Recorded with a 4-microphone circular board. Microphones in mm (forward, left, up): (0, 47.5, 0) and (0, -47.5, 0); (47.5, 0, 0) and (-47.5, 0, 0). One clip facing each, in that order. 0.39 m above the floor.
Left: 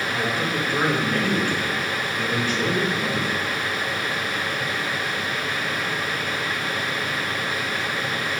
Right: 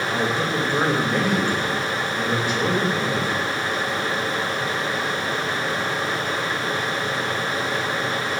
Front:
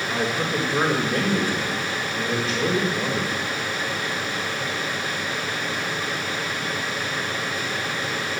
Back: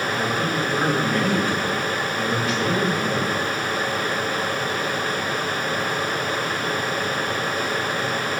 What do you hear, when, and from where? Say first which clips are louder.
0.1 s a man speaking: right 3 dB, front 2 dB; 35° right, 1.8 m